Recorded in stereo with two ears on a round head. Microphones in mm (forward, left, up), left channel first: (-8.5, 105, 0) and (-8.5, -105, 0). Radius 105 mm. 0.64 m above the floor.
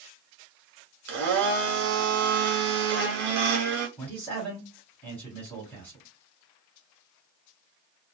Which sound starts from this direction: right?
A blender, at 1.1 s.